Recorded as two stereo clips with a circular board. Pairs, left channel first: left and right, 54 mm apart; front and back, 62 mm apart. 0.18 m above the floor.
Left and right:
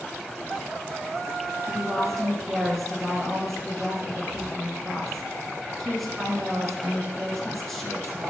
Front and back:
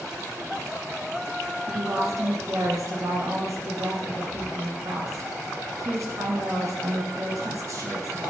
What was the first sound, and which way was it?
A woman speaking, 175° left.